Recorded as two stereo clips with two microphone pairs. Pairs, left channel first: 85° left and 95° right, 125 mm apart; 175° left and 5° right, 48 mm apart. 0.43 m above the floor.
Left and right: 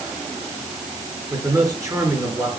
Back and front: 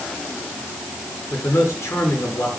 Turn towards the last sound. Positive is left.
turn(degrees=-160)